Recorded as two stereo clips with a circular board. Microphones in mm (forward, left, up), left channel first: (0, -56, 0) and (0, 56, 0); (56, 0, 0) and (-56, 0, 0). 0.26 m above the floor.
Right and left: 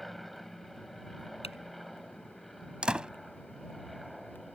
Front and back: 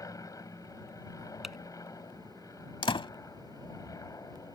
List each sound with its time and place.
0.0 s an aircraft: straight ahead
1.4 s typing on a keyboard: 95° right
2.8 s a door slam: 10° left